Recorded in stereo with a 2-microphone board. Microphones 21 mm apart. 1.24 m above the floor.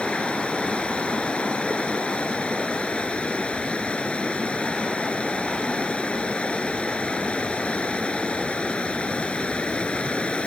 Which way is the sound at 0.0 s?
55° left (ahead or behind).